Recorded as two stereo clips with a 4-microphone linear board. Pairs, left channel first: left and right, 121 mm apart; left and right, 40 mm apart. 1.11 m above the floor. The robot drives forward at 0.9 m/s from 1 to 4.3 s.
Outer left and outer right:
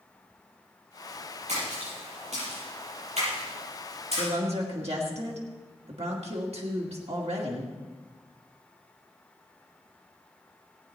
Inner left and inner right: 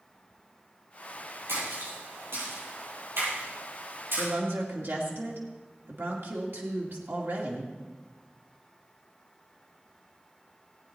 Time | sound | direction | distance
1.5 | a splash | 85° right | 7 m
4.2 | a woman speaking | 70° right (ahead or behind) | 2 m